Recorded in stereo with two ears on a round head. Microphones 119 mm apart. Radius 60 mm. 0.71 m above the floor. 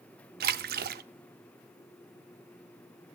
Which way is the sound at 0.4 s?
85° right.